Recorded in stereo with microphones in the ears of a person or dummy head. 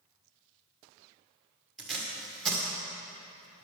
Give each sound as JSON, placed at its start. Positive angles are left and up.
{"t": 1.8, "sound": "tape being pulled", "side_deg": 5, "distance_m": 1.7}